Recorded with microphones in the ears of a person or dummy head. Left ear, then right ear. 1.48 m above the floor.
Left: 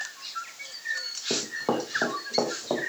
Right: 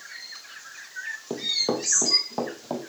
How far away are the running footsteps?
About 4 m.